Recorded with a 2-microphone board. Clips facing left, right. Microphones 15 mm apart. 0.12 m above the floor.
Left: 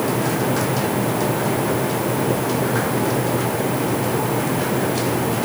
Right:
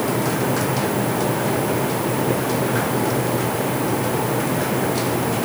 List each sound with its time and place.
Only background noise.